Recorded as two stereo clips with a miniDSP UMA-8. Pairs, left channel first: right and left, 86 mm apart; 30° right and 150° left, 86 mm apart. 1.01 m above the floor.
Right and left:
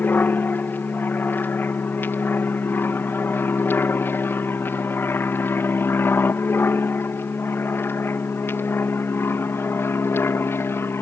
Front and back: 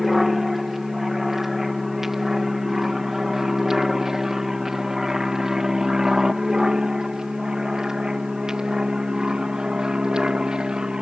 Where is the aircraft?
125° right; by 11.0 s 135° right.